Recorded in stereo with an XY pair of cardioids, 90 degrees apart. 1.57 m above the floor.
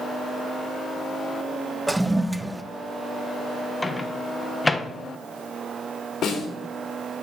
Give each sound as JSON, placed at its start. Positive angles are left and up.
{"t": 1.9, "sound": "a toilet flushing", "azimuth_deg": -10, "distance_m": 0.6}
{"t": 3.8, "sound": "a microwave", "azimuth_deg": 20, "distance_m": 1.1}
{"t": 6.2, "sound": "a snare drum", "azimuth_deg": 70, "distance_m": 3.0}